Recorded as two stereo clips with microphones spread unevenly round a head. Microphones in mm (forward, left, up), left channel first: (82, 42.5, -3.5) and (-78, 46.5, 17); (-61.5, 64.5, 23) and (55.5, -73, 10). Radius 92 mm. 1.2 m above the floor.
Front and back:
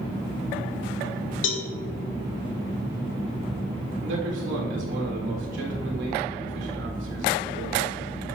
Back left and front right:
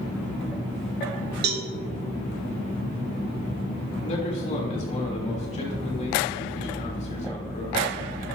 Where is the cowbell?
15° right, 1.3 m.